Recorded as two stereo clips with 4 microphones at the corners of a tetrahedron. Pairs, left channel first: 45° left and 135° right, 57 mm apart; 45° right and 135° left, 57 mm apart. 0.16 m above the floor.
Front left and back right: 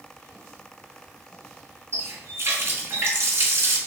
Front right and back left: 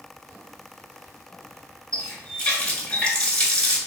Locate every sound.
1.9 s a running tap: 110° right, 1.2 m